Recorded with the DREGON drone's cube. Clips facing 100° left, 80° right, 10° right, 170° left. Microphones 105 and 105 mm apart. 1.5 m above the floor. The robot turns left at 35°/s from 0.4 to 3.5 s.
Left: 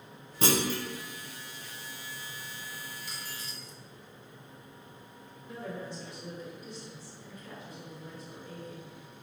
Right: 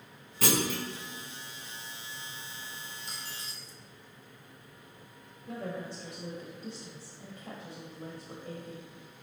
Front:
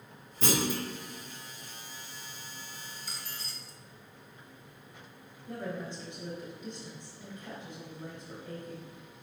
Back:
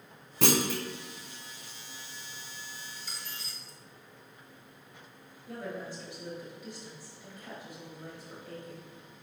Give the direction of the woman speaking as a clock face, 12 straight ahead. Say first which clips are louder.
Right 2 dB, front 1 dB; 3 o'clock.